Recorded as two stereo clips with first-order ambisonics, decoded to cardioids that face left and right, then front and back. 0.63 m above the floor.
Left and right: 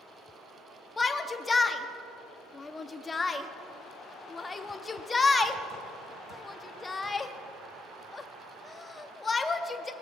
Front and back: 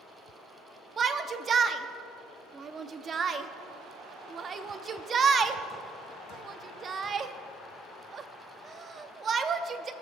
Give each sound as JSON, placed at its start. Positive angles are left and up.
{"t": 1.0, "sound": "a shout", "azimuth_deg": 150, "distance_m": 0.6}